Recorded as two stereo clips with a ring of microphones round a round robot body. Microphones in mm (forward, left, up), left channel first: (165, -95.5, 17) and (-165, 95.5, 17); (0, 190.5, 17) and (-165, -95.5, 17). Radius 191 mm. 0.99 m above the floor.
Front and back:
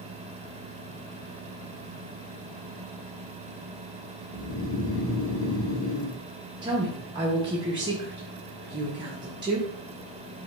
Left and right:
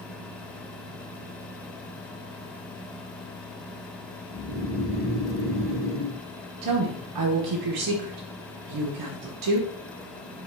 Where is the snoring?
70° right, 0.9 m.